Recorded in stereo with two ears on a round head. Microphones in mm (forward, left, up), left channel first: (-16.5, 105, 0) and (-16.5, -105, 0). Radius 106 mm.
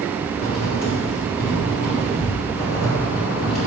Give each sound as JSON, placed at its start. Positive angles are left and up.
{"t": 0.3, "sound": "writing", "side_deg": 45, "distance_m": 3.0}